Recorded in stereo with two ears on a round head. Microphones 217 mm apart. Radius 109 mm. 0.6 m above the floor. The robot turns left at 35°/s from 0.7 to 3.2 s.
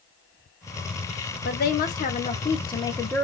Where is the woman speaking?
70° left, 0.8 m; by 3.2 s 10° left, 0.8 m.